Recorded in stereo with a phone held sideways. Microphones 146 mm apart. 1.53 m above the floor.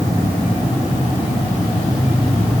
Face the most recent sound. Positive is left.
No sound to turn to.